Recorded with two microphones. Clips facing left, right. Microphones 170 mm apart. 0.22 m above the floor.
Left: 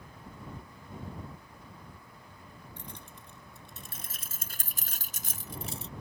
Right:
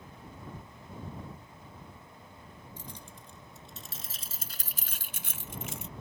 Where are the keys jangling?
65° left (ahead or behind); by 5.9 s 30° left (ahead or behind).